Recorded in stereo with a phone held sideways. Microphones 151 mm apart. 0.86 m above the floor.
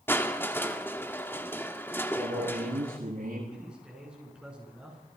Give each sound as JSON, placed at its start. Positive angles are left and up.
{"t": 0.1, "sound": "crushing", "side_deg": 15, "distance_m": 2.0}
{"t": 2.1, "sound": "a man speaking", "side_deg": -75, "distance_m": 9.0}
{"t": 3.5, "sound": "a man speaking", "side_deg": -5, "distance_m": 8.5}